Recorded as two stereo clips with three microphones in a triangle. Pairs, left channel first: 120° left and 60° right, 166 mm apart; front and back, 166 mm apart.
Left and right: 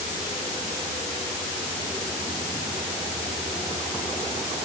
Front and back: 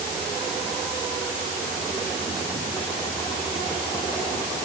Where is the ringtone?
No ringtone in this recording.